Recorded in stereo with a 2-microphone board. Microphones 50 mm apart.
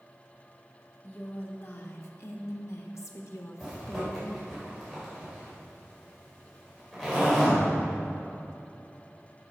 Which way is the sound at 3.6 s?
5° left (ahead or behind).